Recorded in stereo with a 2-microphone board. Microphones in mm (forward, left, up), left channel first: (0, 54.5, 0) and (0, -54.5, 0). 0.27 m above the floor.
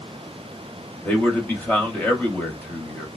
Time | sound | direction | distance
1.1 | a man speaking | 15° left (ahead or behind) | 0.9 m